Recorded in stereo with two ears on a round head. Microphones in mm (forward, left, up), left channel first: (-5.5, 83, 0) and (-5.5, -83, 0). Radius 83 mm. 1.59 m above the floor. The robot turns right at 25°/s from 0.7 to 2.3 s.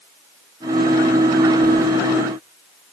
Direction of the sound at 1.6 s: 80° right.